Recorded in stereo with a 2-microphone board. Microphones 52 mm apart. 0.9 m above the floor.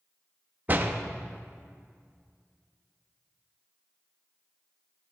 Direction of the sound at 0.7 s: 35° right (ahead or behind).